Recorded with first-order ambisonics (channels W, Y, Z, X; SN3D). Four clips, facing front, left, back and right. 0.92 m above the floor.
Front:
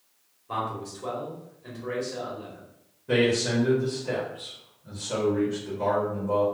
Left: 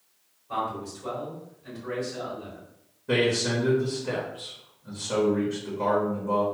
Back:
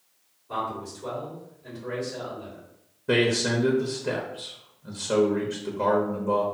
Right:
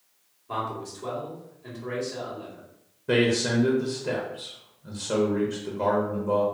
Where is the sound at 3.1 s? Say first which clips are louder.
Right 1 dB, even; 150° right, 0.7 m.